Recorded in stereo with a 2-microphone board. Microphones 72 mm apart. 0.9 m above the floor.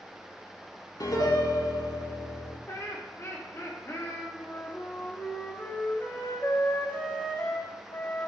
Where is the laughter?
40° left (ahead or behind), 1.9 m.